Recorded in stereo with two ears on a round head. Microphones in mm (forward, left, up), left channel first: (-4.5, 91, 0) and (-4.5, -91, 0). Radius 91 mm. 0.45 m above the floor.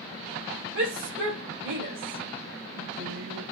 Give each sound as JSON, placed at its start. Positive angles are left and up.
{"t": 0.8, "sound": "a shout", "side_deg": -60, "distance_m": 2.5}